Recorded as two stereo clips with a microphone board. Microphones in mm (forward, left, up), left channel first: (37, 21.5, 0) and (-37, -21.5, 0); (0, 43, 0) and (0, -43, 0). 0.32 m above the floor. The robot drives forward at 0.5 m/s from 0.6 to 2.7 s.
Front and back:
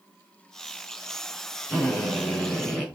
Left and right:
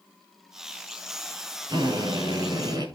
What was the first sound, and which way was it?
A drill, 65° right.